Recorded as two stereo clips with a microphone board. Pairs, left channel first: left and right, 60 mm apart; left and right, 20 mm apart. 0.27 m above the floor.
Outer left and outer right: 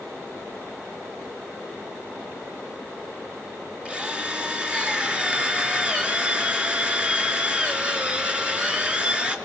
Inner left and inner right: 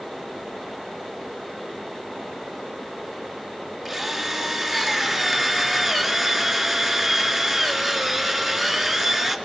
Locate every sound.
3.9 s a drill: 20° right (ahead or behind), 3 m